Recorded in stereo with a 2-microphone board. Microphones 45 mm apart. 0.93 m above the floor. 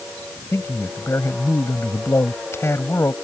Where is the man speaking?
75° left (ahead or behind).